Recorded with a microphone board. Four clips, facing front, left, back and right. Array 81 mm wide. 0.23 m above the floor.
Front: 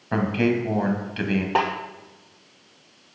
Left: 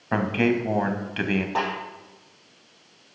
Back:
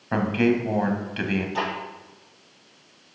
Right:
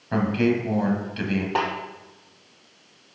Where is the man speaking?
95° left, 1.1 m.